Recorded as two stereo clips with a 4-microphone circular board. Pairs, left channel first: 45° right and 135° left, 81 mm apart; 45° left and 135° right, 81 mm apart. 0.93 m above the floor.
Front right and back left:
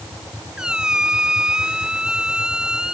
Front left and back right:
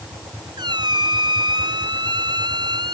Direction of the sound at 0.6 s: 145° right.